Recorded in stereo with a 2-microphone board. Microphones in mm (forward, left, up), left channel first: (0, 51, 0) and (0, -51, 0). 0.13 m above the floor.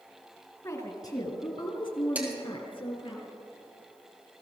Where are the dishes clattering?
15° right (ahead or behind), 2.5 m.